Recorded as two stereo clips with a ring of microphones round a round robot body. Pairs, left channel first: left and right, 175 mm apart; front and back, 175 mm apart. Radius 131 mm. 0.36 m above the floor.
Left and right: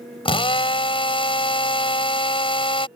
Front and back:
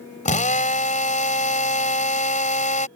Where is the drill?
35° left.